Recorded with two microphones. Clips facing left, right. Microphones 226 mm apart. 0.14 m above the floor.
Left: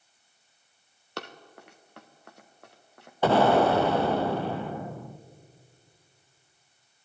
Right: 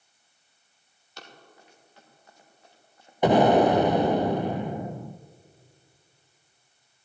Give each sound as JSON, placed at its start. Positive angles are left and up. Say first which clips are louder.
{"t": 1.2, "sound": "running footsteps", "louder": "left 9 dB", "side_deg": 70, "distance_m": 1.5}
{"t": 3.2, "sound": "an explosion", "louder": "right 3 dB", "side_deg": -15, "distance_m": 0.7}